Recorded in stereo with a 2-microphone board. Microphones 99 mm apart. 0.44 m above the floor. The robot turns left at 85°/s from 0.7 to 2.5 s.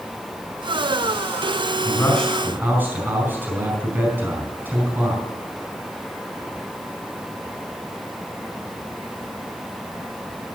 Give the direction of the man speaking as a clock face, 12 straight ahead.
11 o'clock.